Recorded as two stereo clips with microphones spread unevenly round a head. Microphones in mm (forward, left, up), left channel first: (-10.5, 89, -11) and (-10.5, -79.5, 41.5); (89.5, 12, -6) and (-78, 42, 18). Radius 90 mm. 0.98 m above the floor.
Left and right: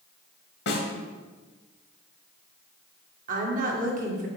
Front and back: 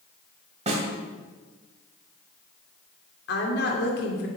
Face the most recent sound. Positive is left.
turn(degrees=-40)